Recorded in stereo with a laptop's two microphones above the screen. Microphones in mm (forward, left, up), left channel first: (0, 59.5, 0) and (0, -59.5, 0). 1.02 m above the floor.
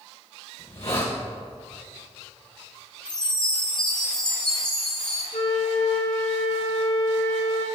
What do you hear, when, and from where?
0.6 s a hiss: 60° left (ahead or behind), 2.5 m
3.0 s a chime: 10° left (ahead or behind), 2.5 m
5.3 s a flute: 80° left, 2 m